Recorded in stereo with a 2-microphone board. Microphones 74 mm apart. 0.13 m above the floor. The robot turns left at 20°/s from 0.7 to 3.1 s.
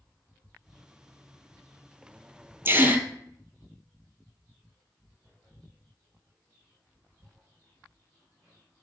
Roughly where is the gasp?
Right.